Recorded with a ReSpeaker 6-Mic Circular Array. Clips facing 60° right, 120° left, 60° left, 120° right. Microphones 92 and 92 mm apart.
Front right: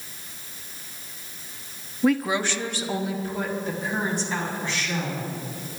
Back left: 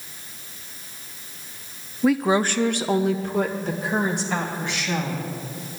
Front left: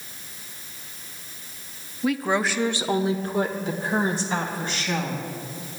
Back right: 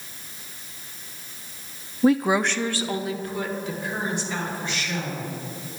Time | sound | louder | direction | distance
2.0 | a woman speaking | back left 3 dB, back right 4 dB | 145° right | 0.6 m